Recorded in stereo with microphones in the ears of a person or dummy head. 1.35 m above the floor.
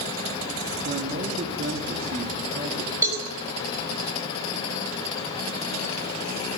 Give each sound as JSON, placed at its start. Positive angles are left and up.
{"t": 0.8, "sound": "a man speaking", "side_deg": -50, "distance_m": 3.0}
{"t": 3.0, "sound": "a cowbell", "side_deg": -30, "distance_m": 4.0}